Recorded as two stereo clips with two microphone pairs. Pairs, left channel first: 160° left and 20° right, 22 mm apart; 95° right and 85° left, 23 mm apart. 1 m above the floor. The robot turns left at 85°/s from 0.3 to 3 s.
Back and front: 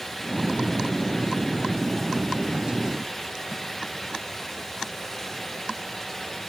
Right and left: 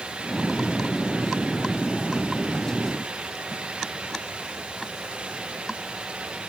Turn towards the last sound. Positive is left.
No sound to turn to.